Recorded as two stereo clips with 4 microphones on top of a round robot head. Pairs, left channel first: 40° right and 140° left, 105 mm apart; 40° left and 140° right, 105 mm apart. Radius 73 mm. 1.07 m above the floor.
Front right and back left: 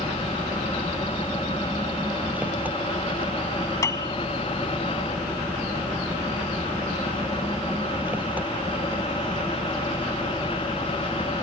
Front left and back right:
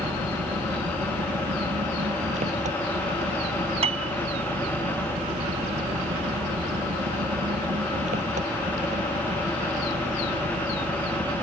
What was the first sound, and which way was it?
An engine running, 145° right.